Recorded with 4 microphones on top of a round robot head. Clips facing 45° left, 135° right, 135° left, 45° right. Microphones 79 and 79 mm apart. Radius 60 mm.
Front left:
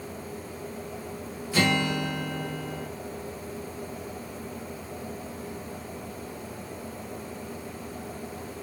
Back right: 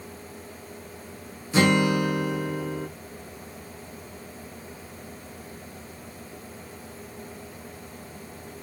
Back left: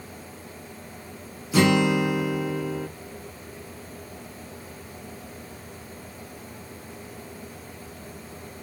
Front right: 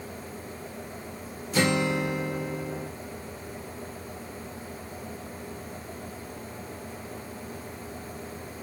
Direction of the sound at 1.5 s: 155° left.